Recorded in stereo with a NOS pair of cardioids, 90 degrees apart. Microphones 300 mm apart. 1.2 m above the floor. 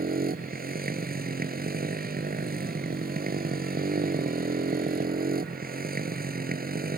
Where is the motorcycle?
30° right.